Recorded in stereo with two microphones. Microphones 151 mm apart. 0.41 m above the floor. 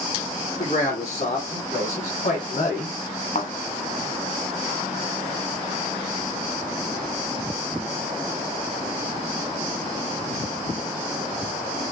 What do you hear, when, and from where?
0.6 s a man speaking: 50° left (ahead or behind), 3.5 m; by 3.0 s 65° left (ahead or behind), 2.0 m
3.4 s a thud: 55° left (ahead or behind), 1.4 m